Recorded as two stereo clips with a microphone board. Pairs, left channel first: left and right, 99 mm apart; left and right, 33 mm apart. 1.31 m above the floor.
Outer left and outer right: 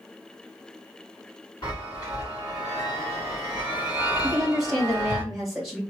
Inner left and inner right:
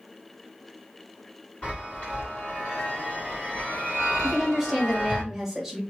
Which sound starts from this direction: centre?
A woman speaking, at 4.2 s.